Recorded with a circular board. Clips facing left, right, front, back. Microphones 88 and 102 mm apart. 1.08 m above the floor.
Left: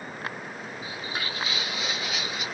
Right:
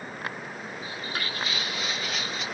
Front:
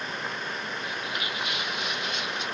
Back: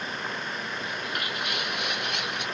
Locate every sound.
0.8 s footsteps: 165° left, 1.4 m